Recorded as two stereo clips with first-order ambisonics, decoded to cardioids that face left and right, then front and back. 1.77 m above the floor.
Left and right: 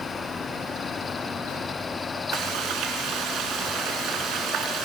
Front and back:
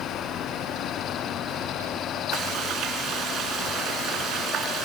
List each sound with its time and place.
2.3 s frying: 130° right, 3.5 m